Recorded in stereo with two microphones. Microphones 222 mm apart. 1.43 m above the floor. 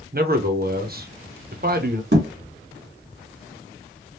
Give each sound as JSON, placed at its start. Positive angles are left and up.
{"t": 0.1, "sound": "a man speaking", "side_deg": -45, "distance_m": 0.7}
{"t": 2.1, "sound": "a thud", "side_deg": -50, "distance_m": 1.7}